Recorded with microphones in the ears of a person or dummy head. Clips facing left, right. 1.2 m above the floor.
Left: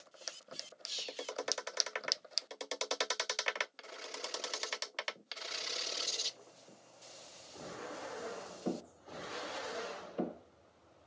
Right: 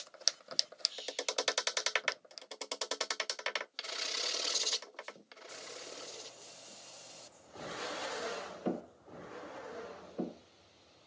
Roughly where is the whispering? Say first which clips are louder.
Right 3 dB; left.